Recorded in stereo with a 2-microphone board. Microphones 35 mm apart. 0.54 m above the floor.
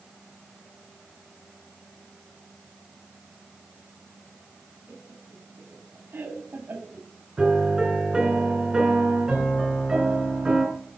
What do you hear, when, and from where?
4.9 s laughter: 75° right (ahead or behind), 5 m; by 7.1 s 70° right (ahead or behind), 2.5 m
7.4 s a piano: 25° right (ahead or behind), 4.5 m